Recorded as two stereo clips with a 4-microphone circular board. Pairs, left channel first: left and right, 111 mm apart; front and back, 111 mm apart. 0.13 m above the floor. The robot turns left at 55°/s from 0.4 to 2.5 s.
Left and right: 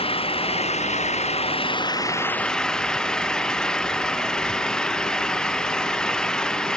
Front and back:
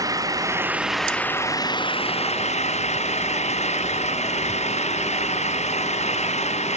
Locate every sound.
0.0 s an engine running: 120° left; by 6.8 s 5° left